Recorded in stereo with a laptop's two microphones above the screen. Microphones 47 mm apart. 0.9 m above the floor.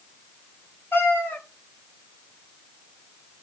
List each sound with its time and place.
0.9 s a cat meowing: 50° left (ahead or behind), 1.6 m